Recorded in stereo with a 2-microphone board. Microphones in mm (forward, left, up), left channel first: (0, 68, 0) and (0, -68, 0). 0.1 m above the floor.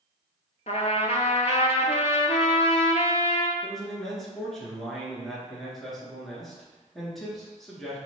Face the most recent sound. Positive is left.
turn(degrees=0)  # may be behind; listen again after turning